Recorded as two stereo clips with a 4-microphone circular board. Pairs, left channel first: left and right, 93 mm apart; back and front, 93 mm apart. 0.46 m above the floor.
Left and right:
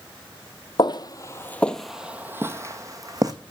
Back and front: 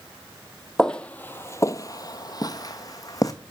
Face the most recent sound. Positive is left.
turn(degrees=-130)